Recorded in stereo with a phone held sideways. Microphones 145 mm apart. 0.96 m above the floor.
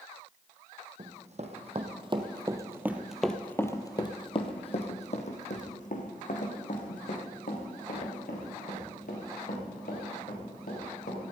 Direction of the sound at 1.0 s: 55° right (ahead or behind).